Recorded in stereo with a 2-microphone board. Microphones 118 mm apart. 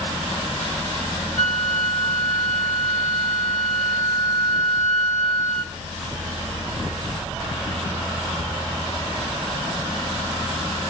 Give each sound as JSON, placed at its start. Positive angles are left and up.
{"t": 1.4, "sound": "a flute", "side_deg": -65, "distance_m": 1.6}